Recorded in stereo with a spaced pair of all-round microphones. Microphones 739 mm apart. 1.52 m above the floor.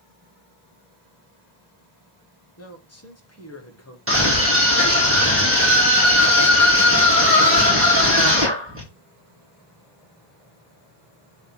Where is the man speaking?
20° left (ahead or behind), 1.4 m.